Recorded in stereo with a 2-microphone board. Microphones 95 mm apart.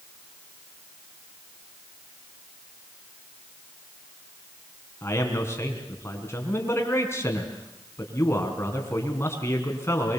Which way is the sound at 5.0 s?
30° left (ahead or behind).